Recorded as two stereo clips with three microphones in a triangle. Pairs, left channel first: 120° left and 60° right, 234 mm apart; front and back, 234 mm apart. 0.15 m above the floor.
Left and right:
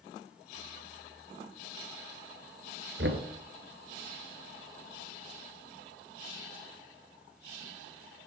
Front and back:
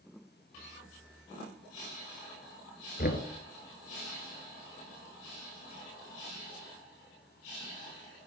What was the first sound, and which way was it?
Knocking, 40° right.